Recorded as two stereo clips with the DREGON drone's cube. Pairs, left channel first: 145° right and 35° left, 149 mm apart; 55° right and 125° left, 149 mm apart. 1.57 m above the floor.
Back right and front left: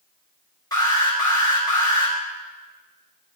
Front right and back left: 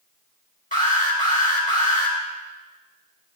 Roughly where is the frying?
No frying in this recording.